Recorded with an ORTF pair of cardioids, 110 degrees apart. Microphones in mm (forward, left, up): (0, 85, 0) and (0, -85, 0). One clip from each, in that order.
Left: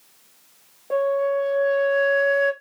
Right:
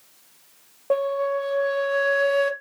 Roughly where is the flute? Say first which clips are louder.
Left 2 dB; ahead right.